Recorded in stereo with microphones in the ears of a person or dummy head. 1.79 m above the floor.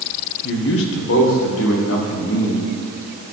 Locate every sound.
0.4 s a man speaking: 70° left (ahead or behind), 1.3 m; by 2.7 s 85° left, 2.5 m